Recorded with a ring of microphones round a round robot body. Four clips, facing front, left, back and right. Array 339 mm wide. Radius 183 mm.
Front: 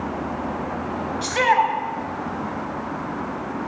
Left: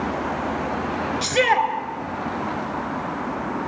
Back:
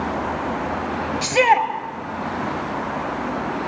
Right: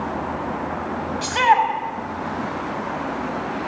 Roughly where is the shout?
Behind left.